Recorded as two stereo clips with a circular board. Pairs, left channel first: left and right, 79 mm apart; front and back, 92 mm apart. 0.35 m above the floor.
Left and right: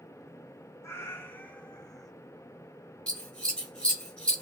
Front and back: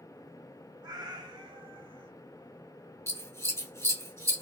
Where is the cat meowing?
145° left, 1.0 m; by 2.1 s 175° right, 0.8 m.